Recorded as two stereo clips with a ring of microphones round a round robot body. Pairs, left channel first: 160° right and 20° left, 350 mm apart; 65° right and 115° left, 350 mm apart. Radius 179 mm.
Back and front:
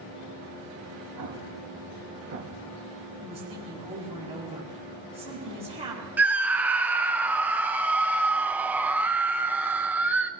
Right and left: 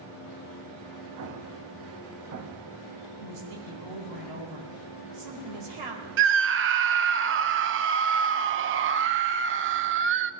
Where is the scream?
105° left, 0.7 m.